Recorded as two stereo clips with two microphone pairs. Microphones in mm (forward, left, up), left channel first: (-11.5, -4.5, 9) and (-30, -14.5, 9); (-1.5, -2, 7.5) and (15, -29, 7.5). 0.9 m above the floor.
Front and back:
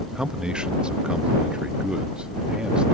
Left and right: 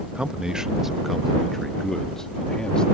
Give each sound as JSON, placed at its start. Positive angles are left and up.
{"t": 0.1, "sound": "a man speaking", "azimuth_deg": -110}